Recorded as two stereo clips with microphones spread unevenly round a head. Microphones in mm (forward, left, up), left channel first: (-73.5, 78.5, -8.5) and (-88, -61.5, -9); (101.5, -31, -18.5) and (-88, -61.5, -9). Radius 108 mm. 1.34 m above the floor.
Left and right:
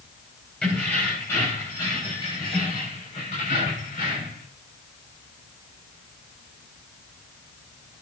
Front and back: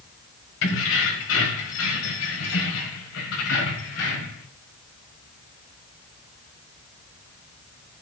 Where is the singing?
I don't hear singing.